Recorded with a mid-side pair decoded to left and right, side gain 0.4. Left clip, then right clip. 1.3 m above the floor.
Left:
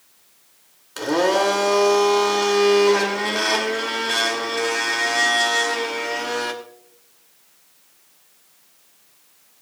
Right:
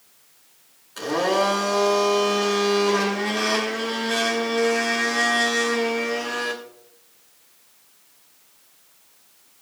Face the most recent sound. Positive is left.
turn(degrees=60)